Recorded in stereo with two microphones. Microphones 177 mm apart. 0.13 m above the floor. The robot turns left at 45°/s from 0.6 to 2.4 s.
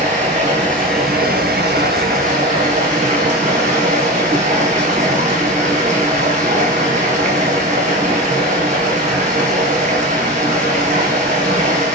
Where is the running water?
50° right, 1.0 m; by 11.9 s 130° right, 1.0 m.